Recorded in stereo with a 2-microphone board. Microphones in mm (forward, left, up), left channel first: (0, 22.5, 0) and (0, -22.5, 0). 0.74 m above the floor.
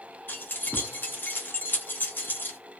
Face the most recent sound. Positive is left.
turn(degrees=50)  # may be behind; listen again after turning